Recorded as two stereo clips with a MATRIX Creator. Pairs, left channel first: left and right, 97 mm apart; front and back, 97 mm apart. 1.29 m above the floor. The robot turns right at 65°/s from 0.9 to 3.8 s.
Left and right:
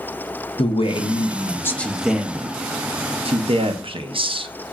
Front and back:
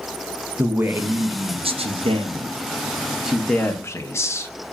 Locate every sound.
0.6 s a man speaking: 110° left, 0.5 m; by 4.5 s 60° right, 0.5 m